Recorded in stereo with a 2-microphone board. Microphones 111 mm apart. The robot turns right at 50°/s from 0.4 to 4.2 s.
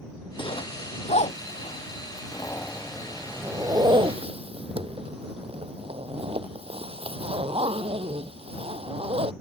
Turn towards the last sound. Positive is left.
turn(degrees=-60)  # may be behind; listen again after turning